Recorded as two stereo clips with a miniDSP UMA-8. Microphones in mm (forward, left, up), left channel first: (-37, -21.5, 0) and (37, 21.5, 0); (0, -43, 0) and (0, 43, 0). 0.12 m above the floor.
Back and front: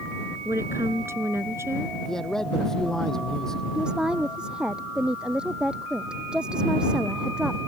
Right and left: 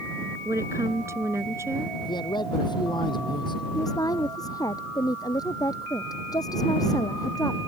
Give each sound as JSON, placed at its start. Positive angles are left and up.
{"t": 0.5, "sound": "a woman speaking", "azimuth_deg": 65}
{"t": 2.0, "sound": "a man speaking", "azimuth_deg": -65}
{"t": 3.8, "sound": "a woman speaking", "azimuth_deg": -50}